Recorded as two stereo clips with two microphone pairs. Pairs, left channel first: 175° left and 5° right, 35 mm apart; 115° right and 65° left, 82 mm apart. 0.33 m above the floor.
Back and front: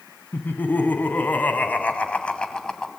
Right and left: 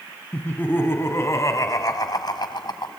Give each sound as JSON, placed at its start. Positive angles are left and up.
{"t": 0.3, "sound": "laughter", "azimuth_deg": 175, "distance_m": 3.5}